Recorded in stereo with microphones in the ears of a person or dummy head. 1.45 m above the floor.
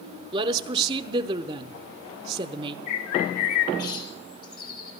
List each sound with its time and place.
0.3 s a woman speaking: 30° right (ahead or behind), 0.8 m
2.9 s a bird: 50° left (ahead or behind), 1.7 m